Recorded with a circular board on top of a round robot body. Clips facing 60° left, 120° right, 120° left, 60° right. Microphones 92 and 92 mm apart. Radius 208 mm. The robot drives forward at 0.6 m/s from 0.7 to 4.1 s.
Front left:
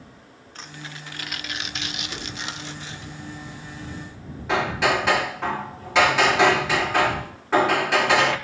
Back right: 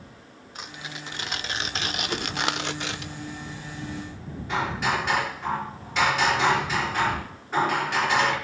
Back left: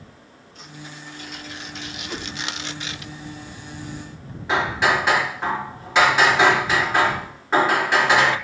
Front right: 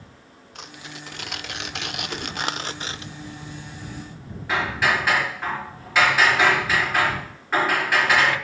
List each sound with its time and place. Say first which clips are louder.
0.6 s tearing paper: back right 1 dB, even; 45° right, 1.4 m; by 3.1 s 120° right, 1.1 m
2.1 s a whoosh: back right 5 dB, even; 155° right, 3.5 m
4.5 s hammering: front left 4 dB, back left 3 dB; 50° left, 4.5 m